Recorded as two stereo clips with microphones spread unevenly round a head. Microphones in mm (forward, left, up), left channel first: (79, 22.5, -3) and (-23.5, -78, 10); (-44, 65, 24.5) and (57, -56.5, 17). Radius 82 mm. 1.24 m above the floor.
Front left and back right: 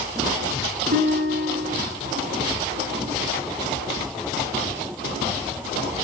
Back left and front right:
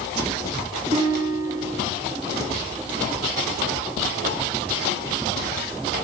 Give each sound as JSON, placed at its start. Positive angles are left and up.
{"t": 0.9, "sound": "a guitar", "azimuth_deg": -110, "distance_m": 8.5}